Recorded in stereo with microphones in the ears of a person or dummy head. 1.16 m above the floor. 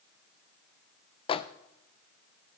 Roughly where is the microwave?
Left.